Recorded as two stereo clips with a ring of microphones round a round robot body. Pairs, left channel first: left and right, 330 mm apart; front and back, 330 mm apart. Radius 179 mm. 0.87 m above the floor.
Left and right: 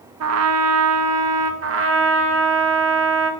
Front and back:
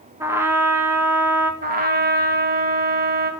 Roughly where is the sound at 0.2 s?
Right.